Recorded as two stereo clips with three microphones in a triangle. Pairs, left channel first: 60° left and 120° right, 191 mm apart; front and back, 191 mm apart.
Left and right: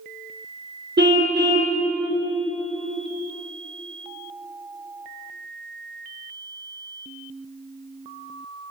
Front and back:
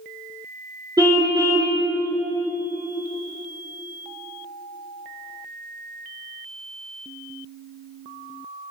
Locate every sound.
1.0 s a car horn: 110° right, 2.5 m